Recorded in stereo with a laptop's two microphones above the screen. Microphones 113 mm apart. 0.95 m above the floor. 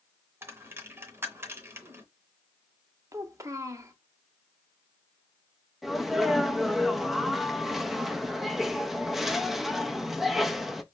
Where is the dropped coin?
20° right (ahead or behind), 0.7 m.